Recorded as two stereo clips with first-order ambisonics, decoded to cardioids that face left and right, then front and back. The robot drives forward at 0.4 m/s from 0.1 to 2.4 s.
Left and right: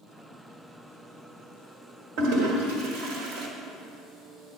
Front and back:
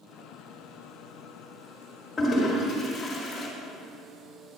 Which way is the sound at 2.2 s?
80° right.